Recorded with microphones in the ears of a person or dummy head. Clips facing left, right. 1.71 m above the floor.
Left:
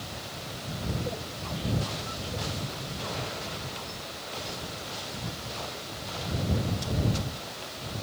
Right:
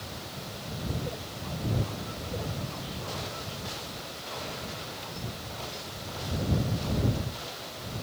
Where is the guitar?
I don't hear a guitar.